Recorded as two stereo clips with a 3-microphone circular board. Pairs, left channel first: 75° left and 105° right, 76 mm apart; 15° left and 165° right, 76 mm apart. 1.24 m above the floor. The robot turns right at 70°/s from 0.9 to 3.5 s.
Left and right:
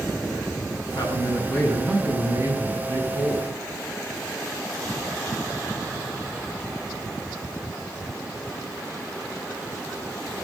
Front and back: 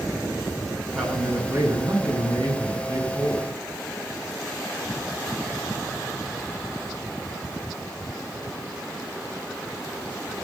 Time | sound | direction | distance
0.9 | a man speaking | 100° left | 8 m